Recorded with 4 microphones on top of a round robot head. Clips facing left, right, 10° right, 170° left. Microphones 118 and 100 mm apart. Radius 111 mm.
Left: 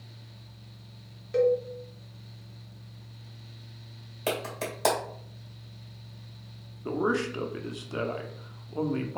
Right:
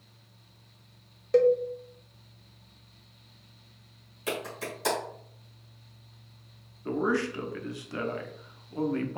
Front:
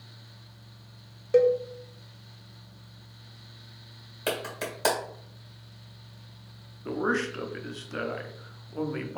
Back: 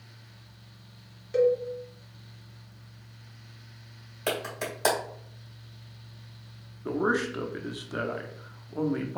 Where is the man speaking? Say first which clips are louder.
Even, back 1 dB; 115° left, 0.7 m.